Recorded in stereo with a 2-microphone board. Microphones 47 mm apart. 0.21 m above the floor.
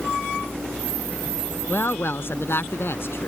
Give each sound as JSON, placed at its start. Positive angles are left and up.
{"t": 1.7, "sound": "a woman speaking", "side_deg": 55}